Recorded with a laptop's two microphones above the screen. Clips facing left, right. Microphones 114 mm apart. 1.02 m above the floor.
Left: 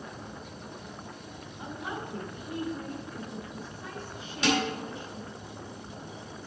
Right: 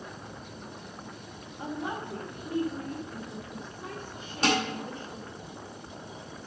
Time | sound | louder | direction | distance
1.6 | a woman speaking | right 3 dB | 50° right (ahead or behind) | 1.5 m
4.4 | dishes clattering | even | 45° right (ahead or behind) | 3.5 m